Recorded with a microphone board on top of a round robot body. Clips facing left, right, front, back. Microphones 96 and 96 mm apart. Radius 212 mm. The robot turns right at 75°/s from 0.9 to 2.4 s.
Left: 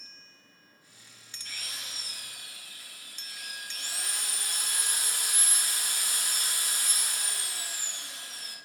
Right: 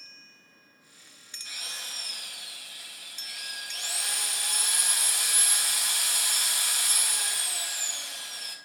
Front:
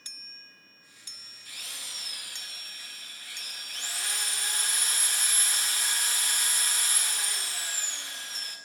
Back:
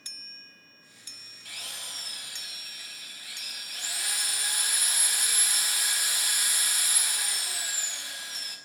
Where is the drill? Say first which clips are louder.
Right 1 dB, back 2 dB; 175° right, 4.5 m; by 8.6 s 100° right, 4.5 m.